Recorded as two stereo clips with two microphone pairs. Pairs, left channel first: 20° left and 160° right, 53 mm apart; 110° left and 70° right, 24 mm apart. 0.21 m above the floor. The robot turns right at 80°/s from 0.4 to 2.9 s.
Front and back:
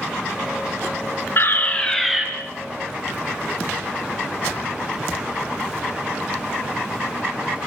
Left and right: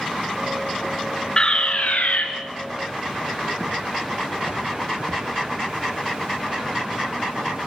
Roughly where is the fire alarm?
Ahead left.